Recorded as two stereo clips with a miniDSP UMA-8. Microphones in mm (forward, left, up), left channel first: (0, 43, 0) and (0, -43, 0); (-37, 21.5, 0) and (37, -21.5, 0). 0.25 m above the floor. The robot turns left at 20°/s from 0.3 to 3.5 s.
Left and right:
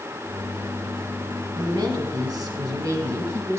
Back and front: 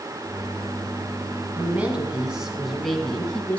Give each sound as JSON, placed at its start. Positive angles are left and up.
{"t": 1.6, "sound": "a woman speaking", "azimuth_deg": -95, "distance_m": 2.5}